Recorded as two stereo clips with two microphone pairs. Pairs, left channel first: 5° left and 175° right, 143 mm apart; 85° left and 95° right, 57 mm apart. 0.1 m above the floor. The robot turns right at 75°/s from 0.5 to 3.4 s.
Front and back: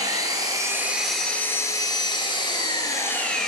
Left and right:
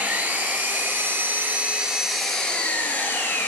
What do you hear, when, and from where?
0.0 s an engine running: 135° right, 0.7 m; by 3.5 s 85° left, 0.7 m